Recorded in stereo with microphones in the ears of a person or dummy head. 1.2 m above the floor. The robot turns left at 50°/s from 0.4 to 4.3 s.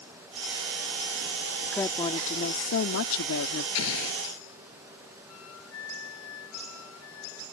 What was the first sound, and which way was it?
A woman speaking, straight behind.